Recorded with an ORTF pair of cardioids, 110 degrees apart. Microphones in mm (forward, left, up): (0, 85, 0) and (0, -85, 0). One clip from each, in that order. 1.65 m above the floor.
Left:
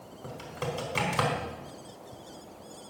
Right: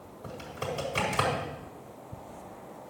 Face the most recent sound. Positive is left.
turn(degrees=15)